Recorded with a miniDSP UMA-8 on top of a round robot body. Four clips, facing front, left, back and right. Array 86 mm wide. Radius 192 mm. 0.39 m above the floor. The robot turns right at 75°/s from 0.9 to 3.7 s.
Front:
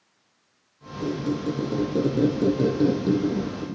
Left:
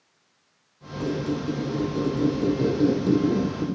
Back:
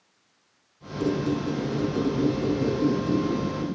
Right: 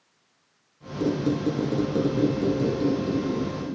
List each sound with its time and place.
1.0 s a squeak: 110° right, 0.7 m; by 3.8 s 95° left, 0.7 m